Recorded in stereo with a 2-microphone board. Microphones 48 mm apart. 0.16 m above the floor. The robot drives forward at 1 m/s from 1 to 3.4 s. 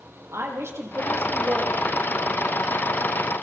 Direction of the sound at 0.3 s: 70° right (ahead or behind).